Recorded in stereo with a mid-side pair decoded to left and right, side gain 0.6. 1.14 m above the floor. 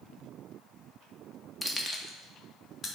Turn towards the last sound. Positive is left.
turn(degrees=30)